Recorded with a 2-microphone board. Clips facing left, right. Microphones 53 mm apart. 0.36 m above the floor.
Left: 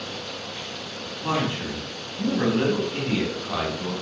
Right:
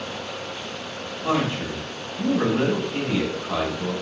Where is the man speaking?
Centre (ahead or behind), 3.5 m.